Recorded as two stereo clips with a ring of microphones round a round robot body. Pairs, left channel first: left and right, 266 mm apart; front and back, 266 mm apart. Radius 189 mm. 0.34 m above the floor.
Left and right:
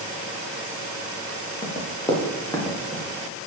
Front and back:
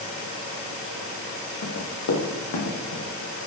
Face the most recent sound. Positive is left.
turn(degrees=5)